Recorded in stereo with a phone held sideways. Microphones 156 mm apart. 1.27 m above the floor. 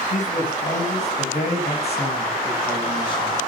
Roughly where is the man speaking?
Left.